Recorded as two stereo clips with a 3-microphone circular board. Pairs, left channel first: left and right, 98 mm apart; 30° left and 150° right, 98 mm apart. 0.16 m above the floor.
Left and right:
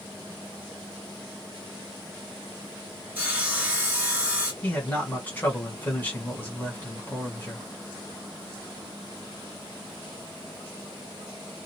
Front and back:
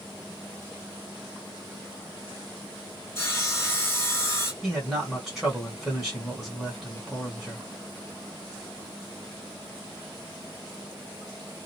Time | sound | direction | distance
3.1 | sawing | 25° right | 1.0 m
4.6 | a man speaking | 125° left | 1.7 m